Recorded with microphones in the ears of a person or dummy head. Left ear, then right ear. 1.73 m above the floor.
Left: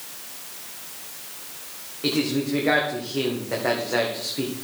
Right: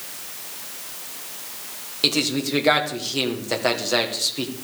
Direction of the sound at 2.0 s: 85° right.